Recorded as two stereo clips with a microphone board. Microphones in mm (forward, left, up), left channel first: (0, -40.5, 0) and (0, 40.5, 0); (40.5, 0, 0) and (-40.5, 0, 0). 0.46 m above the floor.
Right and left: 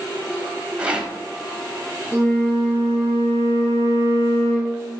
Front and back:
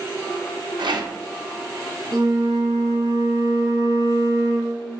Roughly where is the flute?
Behind left.